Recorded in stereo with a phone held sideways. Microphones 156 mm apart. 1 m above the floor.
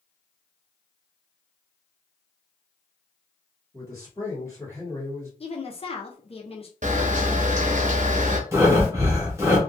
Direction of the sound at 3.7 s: 20° left (ahead or behind).